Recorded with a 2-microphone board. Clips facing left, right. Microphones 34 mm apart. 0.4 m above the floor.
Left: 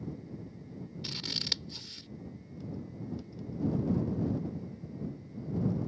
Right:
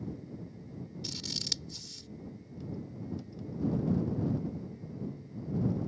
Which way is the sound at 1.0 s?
35° left (ahead or behind).